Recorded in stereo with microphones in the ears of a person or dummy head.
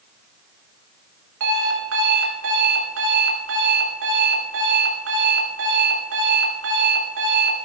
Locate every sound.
1.4 s an alarm clock: 75° right (ahead or behind), 2 m